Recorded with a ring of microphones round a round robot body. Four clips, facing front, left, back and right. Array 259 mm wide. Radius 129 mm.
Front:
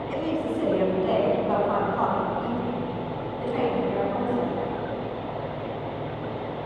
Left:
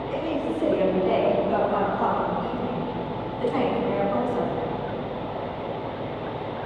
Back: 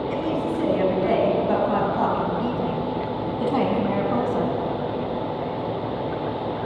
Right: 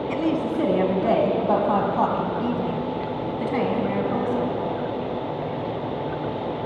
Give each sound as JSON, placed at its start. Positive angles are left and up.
{"t": 0.1, "sound": "a woman speaking", "azimuth_deg": -90, "distance_m": 5.5}